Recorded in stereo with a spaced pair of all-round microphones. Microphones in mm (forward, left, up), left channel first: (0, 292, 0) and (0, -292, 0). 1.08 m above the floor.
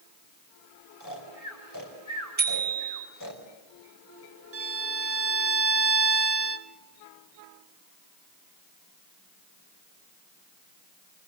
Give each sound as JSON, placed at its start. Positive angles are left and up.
{"t": 1.0, "sound": "snoring", "side_deg": 35, "distance_m": 4.5}
{"t": 2.4, "sound": "a bicycle bell", "side_deg": -50, "distance_m": 7.0}
{"t": 4.5, "sound": "a violin", "side_deg": -25, "distance_m": 0.6}